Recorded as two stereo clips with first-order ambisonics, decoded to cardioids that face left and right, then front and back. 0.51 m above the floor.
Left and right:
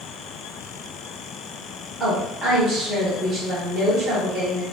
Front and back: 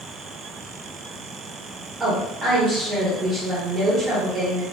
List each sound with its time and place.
2.0 s a woman speaking: 125° right, 1.2 m